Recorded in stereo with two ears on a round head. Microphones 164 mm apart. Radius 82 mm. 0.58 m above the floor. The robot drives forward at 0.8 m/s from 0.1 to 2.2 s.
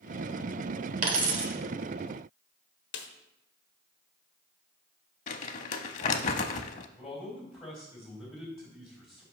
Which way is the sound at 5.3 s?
40° left (ahead or behind).